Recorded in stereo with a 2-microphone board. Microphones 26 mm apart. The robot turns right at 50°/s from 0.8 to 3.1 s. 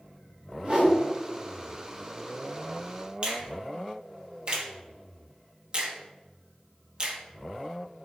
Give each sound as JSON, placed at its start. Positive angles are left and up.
{"t": 0.6, "sound": "a whoosh", "side_deg": -35, "distance_m": 1.1}
{"t": 3.2, "sound": "a finger snap", "side_deg": -35, "distance_m": 0.9}